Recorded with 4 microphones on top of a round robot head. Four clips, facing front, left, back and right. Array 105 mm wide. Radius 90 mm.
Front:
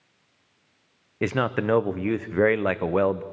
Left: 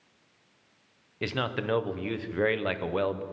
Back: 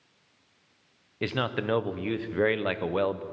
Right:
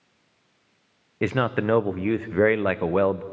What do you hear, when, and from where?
1.2 s a man speaking: 55° right, 0.6 m